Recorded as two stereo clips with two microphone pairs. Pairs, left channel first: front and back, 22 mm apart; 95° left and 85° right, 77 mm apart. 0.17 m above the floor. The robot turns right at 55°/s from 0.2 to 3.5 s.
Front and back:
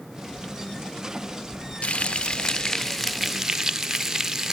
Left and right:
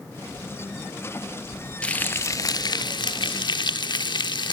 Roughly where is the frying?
Ahead.